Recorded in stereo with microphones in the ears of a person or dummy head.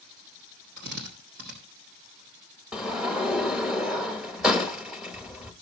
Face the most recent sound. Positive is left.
turn(degrees=-5)  # may be behind; listen again after turning